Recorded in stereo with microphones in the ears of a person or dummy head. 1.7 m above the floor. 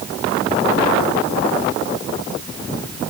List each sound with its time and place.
Only background noise.